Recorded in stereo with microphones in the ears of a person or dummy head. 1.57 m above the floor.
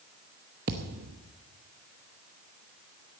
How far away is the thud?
About 0.9 m.